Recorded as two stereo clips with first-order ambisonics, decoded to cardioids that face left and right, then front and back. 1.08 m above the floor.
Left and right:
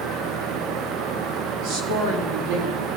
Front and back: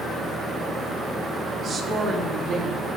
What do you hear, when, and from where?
1.6 s a woman speaking: 115° right, 1.9 m